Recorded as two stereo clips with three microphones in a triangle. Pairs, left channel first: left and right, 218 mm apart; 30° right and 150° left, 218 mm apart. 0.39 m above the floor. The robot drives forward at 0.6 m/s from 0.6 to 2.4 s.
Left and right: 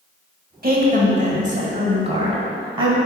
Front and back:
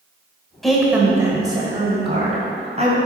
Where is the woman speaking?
120° right, 1.2 m; by 3.0 s 150° right, 1.9 m.